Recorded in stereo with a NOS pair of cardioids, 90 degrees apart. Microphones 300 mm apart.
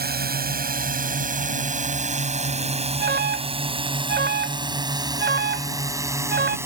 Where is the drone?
30° right; by 6.7 s 10° right.